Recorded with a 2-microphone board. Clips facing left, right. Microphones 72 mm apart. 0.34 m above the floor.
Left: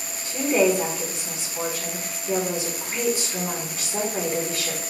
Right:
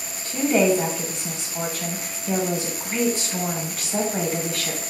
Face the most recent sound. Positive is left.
turn(degrees=-60)  # may be behind; listen again after turning